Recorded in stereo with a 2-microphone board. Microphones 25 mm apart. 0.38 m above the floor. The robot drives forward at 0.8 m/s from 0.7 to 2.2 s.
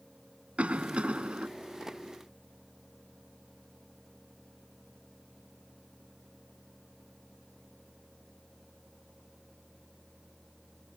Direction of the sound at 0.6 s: 60° right (ahead or behind).